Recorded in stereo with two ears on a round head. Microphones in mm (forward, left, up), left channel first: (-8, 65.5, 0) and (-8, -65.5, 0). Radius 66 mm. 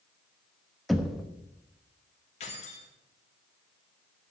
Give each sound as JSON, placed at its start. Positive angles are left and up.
{"t": 0.9, "sound": "knocking", "side_deg": 0, "distance_m": 0.9}
{"t": 2.4, "sound": "keys jangling", "side_deg": 45, "distance_m": 2.5}